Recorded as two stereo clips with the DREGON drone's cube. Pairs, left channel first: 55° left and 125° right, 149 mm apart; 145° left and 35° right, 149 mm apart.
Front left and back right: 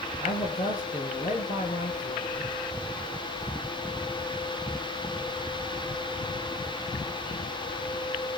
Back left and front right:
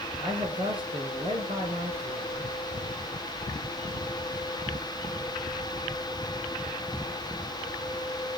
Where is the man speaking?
20° left, 5.5 m.